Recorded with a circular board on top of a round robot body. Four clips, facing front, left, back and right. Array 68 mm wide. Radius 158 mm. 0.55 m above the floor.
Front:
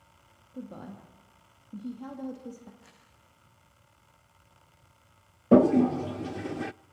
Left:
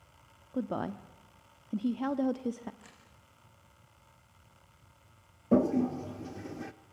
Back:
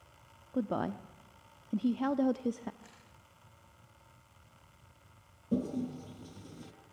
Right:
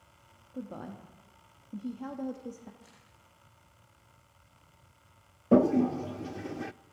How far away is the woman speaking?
About 1.2 m.